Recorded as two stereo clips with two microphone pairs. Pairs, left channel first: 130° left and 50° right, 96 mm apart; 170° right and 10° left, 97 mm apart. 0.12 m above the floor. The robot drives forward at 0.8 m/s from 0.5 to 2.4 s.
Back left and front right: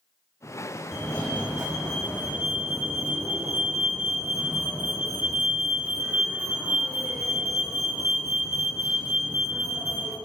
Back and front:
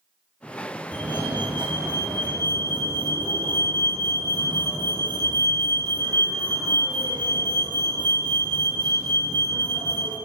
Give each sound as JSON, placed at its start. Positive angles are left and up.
{"t": 0.9, "sound": "a fire alarm", "azimuth_deg": 5, "distance_m": 3.5}